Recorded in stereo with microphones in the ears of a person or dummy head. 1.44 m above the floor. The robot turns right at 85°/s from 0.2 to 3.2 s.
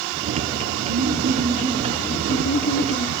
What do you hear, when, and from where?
0.9 s laughter: 90° right, 3 m; by 3.1 s 100° left, 3 m